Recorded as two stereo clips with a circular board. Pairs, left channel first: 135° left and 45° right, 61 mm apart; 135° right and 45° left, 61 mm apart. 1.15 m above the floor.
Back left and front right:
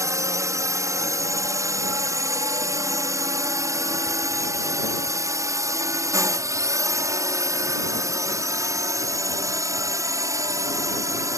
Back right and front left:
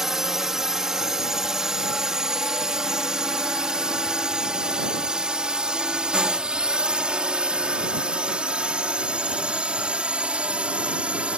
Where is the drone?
35° right; by 11.4 s 25° right.